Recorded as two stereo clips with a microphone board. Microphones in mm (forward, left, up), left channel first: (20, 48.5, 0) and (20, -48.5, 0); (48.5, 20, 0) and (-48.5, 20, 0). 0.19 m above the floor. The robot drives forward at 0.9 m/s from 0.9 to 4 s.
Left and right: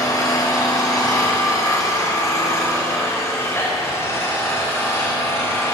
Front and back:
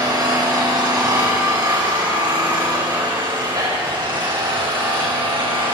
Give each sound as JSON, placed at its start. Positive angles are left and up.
{"t": 0.0, "sound": "an engine running", "azimuth_deg": 140, "distance_m": 7.0}